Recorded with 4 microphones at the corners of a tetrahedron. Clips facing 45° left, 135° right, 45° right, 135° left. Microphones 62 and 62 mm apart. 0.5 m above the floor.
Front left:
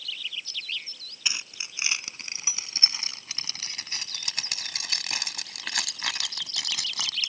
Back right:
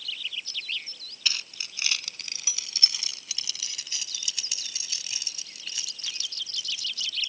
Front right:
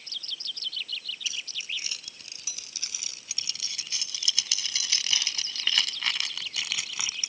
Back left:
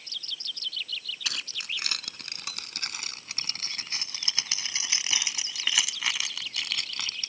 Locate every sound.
1.2 s keys jangling: 115° left; by 7.3 s 35° left